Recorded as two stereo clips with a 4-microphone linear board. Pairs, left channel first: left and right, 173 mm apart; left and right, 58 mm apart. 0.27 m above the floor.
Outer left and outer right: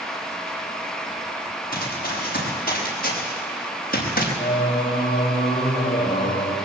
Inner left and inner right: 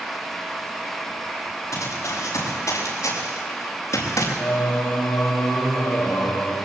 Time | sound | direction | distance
1.7 | running footsteps | 55° left (ahead or behind) | 8 m
4.4 | singing | 35° left (ahead or behind) | 5 m